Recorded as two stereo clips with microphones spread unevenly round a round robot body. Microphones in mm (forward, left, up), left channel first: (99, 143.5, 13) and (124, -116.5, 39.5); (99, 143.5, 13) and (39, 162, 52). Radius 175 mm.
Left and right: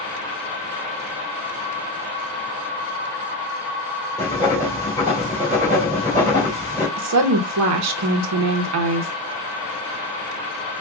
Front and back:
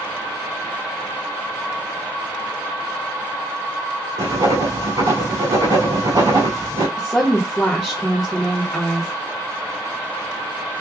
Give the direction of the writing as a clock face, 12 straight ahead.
6 o'clock.